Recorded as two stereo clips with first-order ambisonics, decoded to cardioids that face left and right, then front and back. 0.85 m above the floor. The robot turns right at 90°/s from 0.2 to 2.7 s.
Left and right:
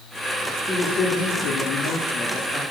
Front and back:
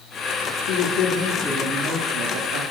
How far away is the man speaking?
About 1.6 m.